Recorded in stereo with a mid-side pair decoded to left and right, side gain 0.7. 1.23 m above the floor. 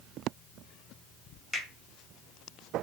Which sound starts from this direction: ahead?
A finger snap, at 1.5 s.